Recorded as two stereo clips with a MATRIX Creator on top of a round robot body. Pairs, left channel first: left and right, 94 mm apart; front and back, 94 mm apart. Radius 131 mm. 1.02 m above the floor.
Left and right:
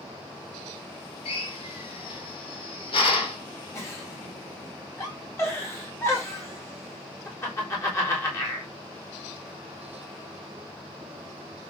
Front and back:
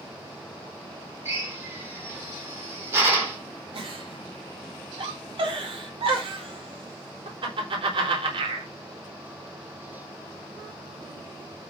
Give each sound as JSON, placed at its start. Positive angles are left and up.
{"t": 1.2, "sound": "a drill", "azimuth_deg": 120, "distance_m": 5.0}
{"t": 3.7, "sound": "a giggle", "azimuth_deg": 155, "distance_m": 4.0}